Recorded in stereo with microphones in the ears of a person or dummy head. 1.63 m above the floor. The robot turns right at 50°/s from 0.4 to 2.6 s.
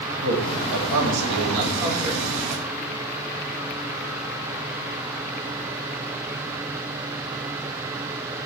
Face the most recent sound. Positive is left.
turn(degrees=5)